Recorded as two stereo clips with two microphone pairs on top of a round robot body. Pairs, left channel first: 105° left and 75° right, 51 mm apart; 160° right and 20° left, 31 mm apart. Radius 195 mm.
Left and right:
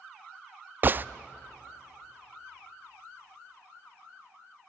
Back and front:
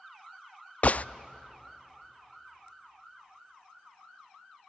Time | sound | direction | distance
0.8 | a gunshot | 130° right | 0.5 m